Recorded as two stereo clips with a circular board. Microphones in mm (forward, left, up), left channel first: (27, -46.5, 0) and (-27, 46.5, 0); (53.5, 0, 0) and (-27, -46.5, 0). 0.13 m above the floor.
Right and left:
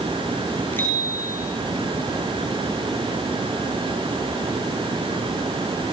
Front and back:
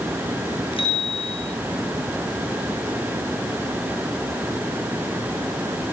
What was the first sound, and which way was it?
A bicycle bell, 10° left.